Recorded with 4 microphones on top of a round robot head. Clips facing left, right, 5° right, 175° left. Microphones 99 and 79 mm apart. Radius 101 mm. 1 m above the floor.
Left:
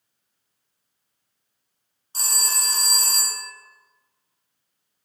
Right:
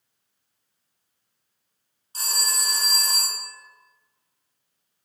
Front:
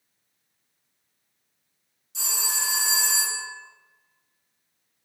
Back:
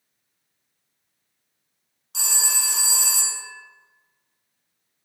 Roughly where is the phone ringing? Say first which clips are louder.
Even, back 1 dB; behind left.